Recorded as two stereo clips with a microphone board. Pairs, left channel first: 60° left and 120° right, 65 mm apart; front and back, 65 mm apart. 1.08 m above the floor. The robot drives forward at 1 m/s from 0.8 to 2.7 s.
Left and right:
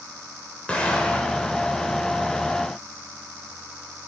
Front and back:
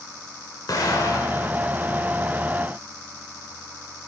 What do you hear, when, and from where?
0.7 s an explosion: 10° right, 2.5 m; by 1.5 s 15° right, 1.6 m